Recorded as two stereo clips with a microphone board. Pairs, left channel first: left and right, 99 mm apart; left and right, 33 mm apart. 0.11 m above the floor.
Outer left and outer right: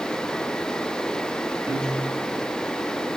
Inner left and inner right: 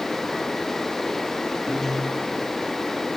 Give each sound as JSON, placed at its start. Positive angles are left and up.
{"t": 1.7, "sound": "a piano", "side_deg": -25, "distance_m": 8.5}